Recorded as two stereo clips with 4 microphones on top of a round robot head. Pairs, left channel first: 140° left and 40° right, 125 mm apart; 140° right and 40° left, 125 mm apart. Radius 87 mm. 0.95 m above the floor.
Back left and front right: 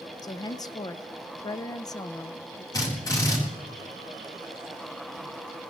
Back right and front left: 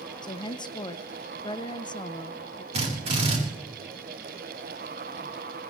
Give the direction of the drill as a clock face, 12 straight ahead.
9 o'clock.